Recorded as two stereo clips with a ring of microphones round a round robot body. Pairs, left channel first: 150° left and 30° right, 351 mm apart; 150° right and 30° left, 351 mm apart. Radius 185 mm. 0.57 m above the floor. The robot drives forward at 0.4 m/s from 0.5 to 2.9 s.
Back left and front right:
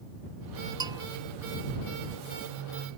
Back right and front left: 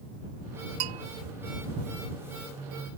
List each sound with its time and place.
0.8 s a bell: 50° left